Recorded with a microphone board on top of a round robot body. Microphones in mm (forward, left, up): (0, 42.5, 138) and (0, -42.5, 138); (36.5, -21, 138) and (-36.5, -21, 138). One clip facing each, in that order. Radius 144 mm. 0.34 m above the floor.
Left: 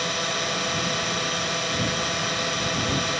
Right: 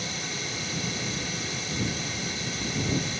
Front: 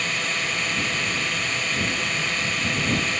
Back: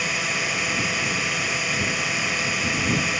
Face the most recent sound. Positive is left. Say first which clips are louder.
# left 8 dB, back 1 dB
turn(degrees=95)